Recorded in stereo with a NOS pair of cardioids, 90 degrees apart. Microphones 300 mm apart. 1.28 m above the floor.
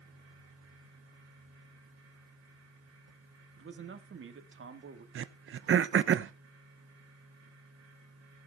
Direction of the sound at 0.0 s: 55° right.